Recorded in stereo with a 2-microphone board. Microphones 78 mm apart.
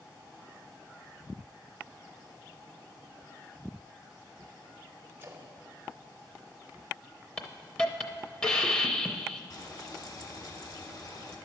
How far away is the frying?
About 1.3 m.